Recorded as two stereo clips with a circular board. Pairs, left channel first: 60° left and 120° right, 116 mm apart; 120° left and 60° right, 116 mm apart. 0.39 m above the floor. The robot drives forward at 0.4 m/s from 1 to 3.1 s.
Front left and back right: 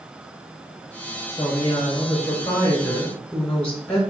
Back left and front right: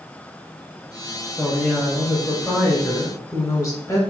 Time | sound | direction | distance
1.4 | a woman speaking | 35° left | 1.0 m